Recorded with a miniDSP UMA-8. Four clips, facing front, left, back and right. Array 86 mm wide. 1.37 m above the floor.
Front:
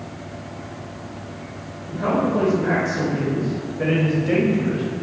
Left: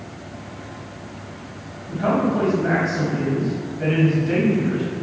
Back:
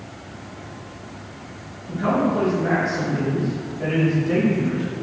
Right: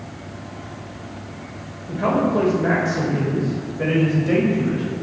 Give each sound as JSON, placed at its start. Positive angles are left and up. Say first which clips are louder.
{"t": 1.9, "sound": "a man speaking", "louder": "right 1 dB, even", "azimuth_deg": -80, "distance_m": 4.5}